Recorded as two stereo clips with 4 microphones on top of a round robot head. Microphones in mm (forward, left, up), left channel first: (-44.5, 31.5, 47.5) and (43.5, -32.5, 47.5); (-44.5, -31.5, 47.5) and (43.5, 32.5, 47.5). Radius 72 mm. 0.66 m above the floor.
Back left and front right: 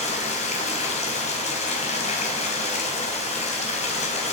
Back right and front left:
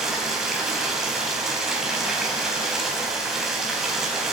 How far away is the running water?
About 5 m.